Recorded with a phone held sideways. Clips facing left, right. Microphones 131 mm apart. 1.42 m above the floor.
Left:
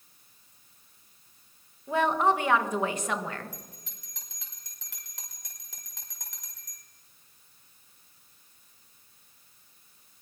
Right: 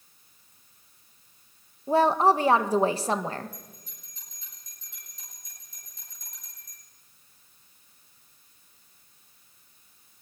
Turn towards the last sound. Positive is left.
turn(degrees=85)